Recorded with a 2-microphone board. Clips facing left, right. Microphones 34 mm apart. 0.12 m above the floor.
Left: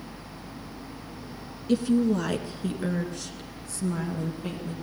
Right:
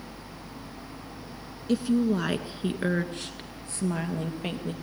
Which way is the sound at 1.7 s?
5° right (ahead or behind).